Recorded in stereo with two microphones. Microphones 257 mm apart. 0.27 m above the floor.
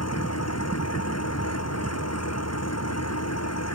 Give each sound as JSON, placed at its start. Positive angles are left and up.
{"t": 0.0, "sound": "an engine running", "side_deg": 75}